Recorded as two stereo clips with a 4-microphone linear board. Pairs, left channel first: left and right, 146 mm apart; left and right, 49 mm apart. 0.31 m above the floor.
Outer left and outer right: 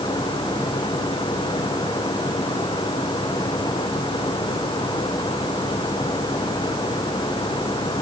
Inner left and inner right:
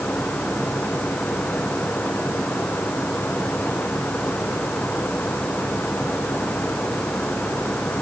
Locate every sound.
Only background noise.